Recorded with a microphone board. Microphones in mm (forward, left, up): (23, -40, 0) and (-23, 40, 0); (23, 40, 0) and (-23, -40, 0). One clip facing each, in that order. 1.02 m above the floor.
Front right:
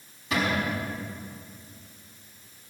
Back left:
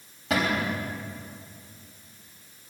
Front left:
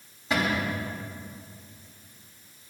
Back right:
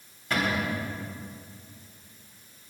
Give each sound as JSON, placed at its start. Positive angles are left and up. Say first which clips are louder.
{"t": 0.3, "sound": "a cupboard door", "louder": "back left 1 dB, front left 1 dB", "azimuth_deg": 140, "distance_m": 3.5}